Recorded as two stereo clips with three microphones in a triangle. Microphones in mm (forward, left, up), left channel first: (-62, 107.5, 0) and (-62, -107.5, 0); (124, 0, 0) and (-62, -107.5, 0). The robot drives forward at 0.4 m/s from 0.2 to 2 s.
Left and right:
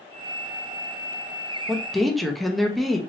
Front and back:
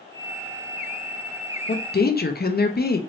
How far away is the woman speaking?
About 0.7 m.